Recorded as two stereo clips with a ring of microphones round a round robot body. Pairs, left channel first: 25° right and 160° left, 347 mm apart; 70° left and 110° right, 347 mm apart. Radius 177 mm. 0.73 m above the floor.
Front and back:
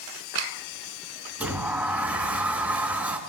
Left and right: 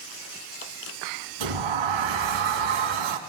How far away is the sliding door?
About 3 m.